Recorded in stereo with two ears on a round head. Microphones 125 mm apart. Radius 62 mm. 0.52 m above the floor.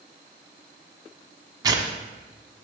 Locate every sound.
1.6 s tearing paper: 30° right (ahead or behind), 1.1 m